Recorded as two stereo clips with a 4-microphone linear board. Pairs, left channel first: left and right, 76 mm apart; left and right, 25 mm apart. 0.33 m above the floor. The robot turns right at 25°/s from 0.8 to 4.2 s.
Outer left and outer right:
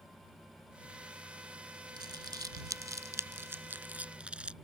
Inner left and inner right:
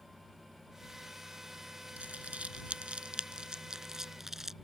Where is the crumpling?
70° right (ahead or behind); by 4.5 s 15° right (ahead or behind).